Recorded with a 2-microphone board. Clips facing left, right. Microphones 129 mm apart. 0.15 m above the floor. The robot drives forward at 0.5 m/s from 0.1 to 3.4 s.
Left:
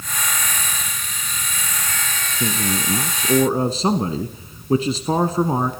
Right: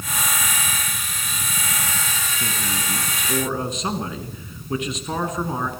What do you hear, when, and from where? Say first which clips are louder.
2.4 s a man speaking: left 9 dB; 35° left (ahead or behind), 1.2 m; by 5.7 s 30° left (ahead or behind), 1.2 m